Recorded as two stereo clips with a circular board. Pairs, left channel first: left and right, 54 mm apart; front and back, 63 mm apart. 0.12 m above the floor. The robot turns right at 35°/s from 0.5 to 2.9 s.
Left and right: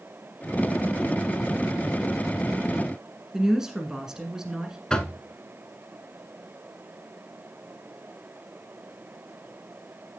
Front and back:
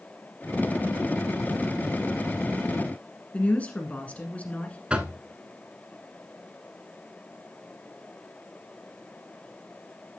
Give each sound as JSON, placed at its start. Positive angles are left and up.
{"t": 3.3, "sound": "a woman speaking", "azimuth_deg": -25, "distance_m": 1.4}
{"t": 4.9, "sound": "knocking", "azimuth_deg": 135, "distance_m": 0.8}